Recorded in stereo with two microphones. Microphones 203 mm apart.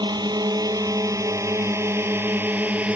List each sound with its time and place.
0.0 s a drone: 20° right (ahead or behind); by 3.0 s 5° right (ahead or behind)